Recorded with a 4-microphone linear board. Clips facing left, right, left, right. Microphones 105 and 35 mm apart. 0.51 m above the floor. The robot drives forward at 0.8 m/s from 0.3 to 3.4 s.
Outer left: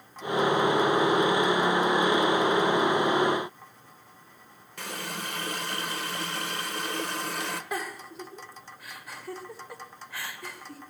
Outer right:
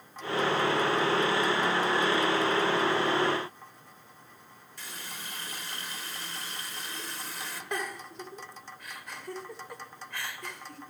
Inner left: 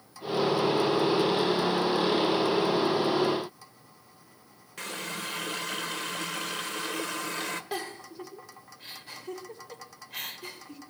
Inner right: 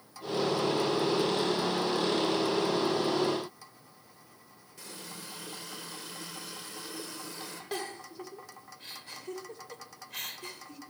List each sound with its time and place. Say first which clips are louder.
4.8 s a running tap: outer left 9 dB, inner left 10 dB; 70° left (ahead or behind), 1.1 m
7.7 s a giggle: outer left 1 dB, inner left 2 dB; 5° left (ahead or behind), 1.8 m